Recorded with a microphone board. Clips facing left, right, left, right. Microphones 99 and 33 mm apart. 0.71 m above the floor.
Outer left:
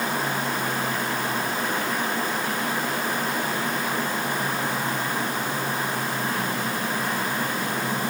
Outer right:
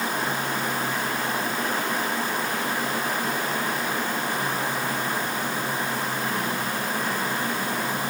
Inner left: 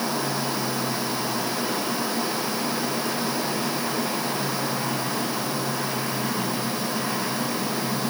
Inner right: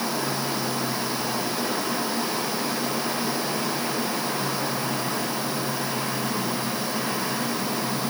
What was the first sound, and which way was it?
Only background noise.